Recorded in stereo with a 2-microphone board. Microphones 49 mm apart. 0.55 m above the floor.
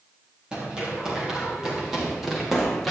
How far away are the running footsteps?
About 5.5 m.